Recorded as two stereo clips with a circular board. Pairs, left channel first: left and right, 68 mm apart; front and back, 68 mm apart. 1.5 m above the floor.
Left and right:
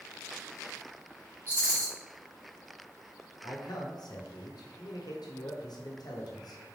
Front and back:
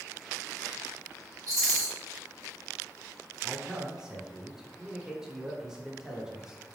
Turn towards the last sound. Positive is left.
turn(degrees=100)